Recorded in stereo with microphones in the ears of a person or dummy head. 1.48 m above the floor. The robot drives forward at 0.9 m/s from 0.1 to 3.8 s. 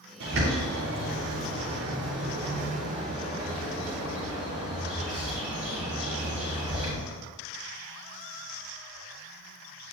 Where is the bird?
85° right, 3 m; by 6.9 s 40° right (ahead or behind), 4.5 m.